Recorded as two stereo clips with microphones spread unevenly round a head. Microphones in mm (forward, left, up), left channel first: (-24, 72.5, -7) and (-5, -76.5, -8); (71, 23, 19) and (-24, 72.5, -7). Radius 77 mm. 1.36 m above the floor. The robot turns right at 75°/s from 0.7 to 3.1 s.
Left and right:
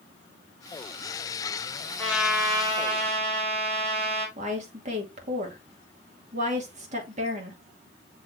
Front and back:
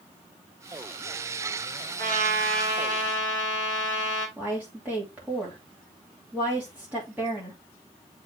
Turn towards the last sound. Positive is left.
turn(degrees=-125)